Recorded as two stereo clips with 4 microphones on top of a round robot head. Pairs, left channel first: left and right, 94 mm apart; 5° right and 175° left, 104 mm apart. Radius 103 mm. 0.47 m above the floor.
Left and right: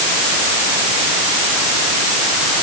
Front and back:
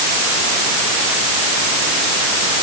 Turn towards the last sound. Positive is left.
No sound to turn to.